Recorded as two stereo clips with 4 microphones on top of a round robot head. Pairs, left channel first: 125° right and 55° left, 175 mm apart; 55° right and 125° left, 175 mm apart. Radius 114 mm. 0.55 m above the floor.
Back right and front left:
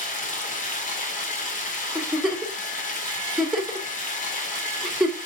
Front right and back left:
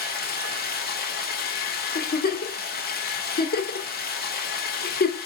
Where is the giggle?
35° right, 1.3 m.